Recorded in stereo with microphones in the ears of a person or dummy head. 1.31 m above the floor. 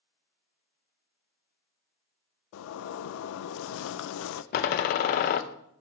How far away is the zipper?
About 0.5 m.